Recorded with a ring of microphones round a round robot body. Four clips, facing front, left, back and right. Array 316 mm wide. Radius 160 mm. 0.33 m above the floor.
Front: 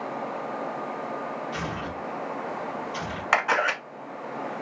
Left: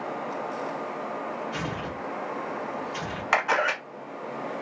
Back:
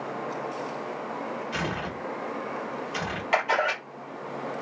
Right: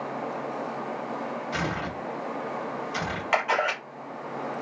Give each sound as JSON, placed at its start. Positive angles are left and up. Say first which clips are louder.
{"t": 1.5, "sound": "tearing paper", "louder": "right 2 dB, back 1 dB", "azimuth_deg": -125, "distance_m": 0.8}
{"t": 3.3, "sound": "a camera shutter", "louder": "left 1 dB, front 1 dB", "azimuth_deg": 20, "distance_m": 1.1}